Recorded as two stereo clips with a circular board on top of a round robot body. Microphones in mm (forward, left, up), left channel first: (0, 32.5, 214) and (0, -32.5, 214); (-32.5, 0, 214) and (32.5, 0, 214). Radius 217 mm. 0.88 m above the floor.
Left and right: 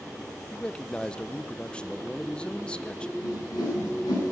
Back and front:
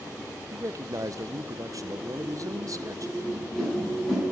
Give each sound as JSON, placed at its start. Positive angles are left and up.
{"t": 0.5, "sound": "a man speaking", "azimuth_deg": 15, "distance_m": 1.0}
{"t": 3.2, "sound": "a whoosh", "azimuth_deg": 100, "distance_m": 7.0}